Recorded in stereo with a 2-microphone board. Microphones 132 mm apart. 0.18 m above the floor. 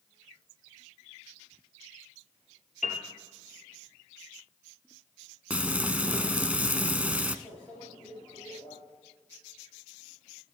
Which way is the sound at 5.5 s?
10° right (ahead or behind).